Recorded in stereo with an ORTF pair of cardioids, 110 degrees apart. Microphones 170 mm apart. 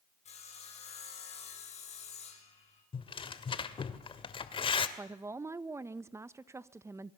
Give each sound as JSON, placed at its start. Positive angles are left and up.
{"t": 0.2, "sound": "sawing", "azimuth_deg": 40, "distance_m": 6.5}
{"t": 2.9, "sound": "tearing paper", "azimuth_deg": 35, "distance_m": 2.0}
{"t": 5.0, "sound": "a woman speaking", "azimuth_deg": -15, "distance_m": 1.0}